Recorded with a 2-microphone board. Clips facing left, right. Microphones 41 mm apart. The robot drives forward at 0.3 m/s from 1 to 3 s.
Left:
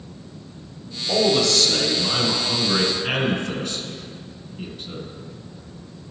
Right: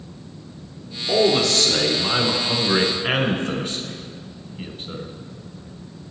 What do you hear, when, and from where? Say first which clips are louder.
1.1 s a man speaking: right 1 dB; 25° right (ahead or behind), 1.1 m